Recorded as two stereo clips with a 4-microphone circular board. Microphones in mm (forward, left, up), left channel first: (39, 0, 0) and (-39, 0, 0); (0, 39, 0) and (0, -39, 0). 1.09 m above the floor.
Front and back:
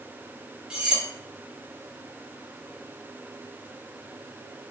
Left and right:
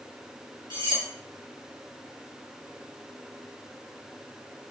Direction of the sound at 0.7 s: 105° right.